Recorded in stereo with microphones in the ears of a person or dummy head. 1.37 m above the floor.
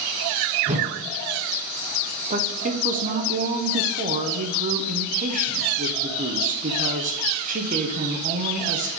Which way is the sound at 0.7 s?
35° right (ahead or behind).